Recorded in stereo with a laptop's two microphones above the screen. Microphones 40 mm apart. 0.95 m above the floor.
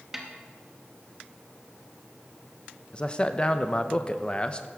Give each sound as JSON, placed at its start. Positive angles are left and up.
{"t": 0.1, "sound": "a snare drum", "side_deg": -10, "distance_m": 1.1}
{"t": 2.9, "sound": "a man speaking", "side_deg": 25, "distance_m": 0.6}